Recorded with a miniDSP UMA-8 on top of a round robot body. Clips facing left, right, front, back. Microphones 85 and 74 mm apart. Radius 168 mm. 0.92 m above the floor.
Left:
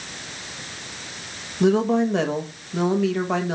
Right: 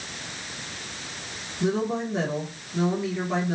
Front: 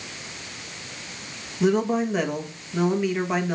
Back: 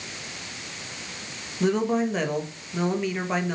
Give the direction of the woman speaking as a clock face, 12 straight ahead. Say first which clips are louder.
Left 7 dB, front 2 dB; 9 o'clock.